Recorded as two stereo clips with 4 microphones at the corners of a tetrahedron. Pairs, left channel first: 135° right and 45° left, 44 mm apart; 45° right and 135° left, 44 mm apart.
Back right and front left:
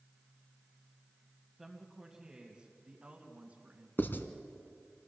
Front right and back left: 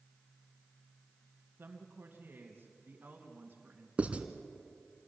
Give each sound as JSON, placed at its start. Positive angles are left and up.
{"t": 1.6, "sound": "a woman speaking", "azimuth_deg": 125, "distance_m": 2.0}
{"t": 4.0, "sound": "writing", "azimuth_deg": -170, "distance_m": 1.4}